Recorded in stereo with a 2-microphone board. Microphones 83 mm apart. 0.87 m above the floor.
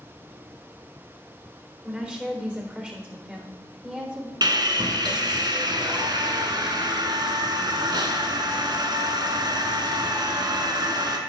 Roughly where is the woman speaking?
Centre.